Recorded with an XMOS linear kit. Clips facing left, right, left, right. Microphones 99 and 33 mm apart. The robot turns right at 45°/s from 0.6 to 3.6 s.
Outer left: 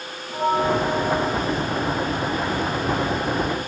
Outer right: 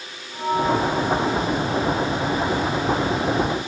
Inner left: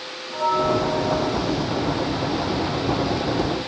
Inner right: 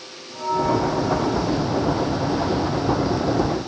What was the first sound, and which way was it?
A bell, 105° left.